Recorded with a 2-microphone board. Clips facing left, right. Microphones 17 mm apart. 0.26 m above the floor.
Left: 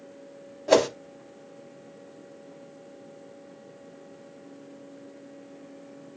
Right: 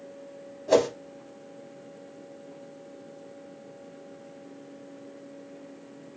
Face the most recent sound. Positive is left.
turn(degrees=30)  # may be behind; listen again after turning